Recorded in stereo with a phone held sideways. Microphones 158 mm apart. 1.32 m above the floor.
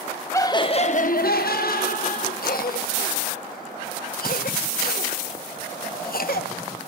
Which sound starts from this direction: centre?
Laughter, at 0.3 s.